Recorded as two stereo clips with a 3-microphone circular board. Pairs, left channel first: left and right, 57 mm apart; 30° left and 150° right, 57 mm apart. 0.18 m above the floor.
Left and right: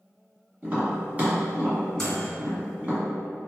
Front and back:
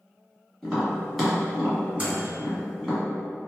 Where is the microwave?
165° left, 1.4 m.